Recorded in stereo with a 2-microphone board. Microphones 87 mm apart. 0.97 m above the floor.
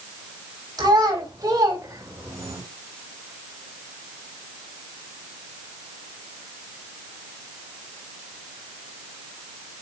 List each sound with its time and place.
0.8 s a child speaking: 50° right (ahead or behind), 4 m; by 2.6 s 30° right (ahead or behind), 3 m